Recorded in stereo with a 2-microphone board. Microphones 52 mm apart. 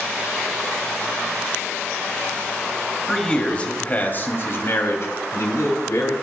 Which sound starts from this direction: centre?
A man speaking, at 3.1 s.